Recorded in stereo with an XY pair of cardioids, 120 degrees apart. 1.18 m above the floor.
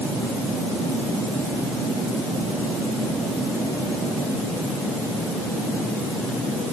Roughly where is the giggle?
I don't hear a giggle.